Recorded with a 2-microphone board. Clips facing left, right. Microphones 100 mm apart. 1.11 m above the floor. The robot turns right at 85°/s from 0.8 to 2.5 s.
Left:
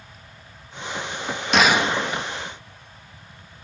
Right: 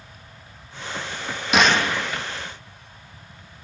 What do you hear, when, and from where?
1.5 s a gunshot: 5° right, 0.9 m; by 2.2 s 55° left, 0.9 m